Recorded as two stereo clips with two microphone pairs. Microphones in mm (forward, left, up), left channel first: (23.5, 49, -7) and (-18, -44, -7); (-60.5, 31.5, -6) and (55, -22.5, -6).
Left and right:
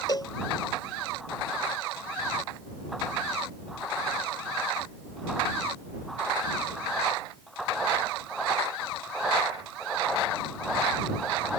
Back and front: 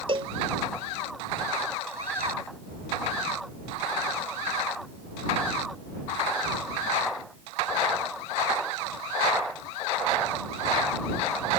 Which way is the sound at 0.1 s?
20° left.